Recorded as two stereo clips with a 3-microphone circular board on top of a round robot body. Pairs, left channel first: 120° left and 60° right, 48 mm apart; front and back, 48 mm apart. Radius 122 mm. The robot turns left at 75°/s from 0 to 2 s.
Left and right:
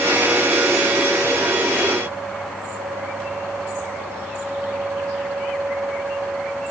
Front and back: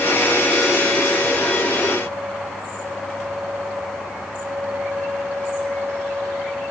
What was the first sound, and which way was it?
Only background noise.